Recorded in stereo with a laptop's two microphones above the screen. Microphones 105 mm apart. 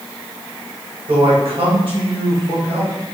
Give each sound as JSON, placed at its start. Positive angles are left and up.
{"t": 1.1, "sound": "a man speaking", "side_deg": -65, "distance_m": 2.0}